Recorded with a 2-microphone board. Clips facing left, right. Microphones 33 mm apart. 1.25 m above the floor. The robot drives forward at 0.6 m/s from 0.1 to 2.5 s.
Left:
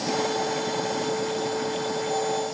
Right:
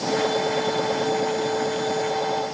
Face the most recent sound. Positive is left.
No sound to turn to.